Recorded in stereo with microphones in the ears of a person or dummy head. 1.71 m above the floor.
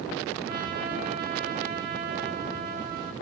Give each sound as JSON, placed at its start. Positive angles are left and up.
{"t": 0.5, "sound": "a trumpet", "side_deg": -55, "distance_m": 3.5}